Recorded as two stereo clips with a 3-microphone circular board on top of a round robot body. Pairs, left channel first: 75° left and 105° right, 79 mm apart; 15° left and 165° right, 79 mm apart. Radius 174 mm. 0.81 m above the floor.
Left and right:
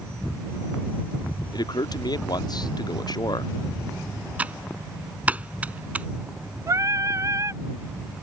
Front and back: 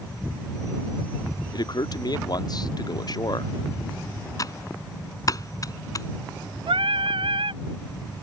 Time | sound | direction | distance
1.5 | a man speaking | 45° left | ?
4.4 | typing on a keyboard | 30° right | ?
6.7 | singing | 160° right | ?